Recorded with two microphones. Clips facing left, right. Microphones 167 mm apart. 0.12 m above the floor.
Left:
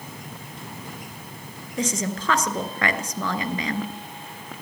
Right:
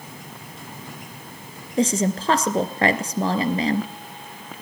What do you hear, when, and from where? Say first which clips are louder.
1.8 s a woman speaking: right 6 dB; 35° right (ahead or behind), 1.5 m